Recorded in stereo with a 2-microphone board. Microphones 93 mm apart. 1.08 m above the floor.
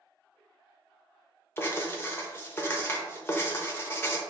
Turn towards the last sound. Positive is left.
turn(degrees=25)  # may be behind; listen again after turning